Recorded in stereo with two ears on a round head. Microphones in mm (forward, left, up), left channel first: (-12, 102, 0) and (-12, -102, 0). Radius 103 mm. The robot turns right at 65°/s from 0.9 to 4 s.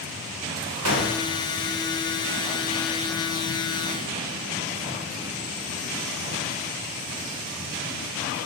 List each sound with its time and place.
0.8 s a gunshot: 75° right (ahead or behind), 0.8 m